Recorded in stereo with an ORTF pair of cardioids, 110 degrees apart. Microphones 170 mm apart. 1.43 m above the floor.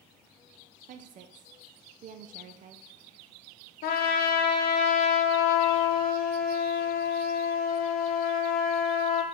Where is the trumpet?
65° left, 0.9 m.